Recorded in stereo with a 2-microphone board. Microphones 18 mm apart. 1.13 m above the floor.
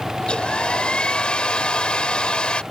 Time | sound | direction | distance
0.2 | a hair dryer | 60° left (ahead or behind) | ?